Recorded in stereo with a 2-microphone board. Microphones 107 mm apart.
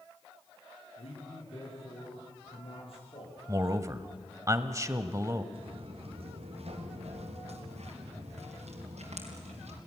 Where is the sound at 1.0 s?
65° left (ahead or behind), 9 m; by 3.4 s 60° left (ahead or behind), 10 m.